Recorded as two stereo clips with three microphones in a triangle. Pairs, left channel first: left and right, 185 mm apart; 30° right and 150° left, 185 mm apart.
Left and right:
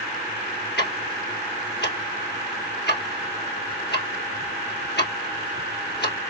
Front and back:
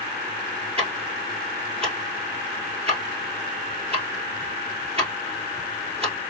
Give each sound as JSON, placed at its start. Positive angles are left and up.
{"t": 0.8, "sound": "ticking", "azimuth_deg": 95, "distance_m": 2.0}